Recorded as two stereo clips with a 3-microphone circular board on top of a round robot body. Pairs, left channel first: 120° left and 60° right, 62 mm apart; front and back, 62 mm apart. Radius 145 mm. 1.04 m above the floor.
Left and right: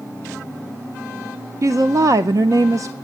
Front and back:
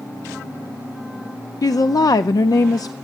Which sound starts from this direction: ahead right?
A woman speaking, at 1.6 s.